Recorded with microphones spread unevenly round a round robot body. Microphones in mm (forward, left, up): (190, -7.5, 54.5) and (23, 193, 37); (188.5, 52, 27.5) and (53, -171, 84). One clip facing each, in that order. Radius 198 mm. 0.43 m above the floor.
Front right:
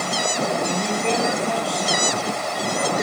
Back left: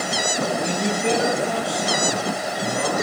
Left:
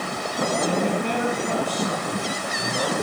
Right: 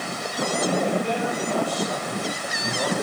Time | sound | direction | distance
0.6 | a man speaking | 60° left | 4 m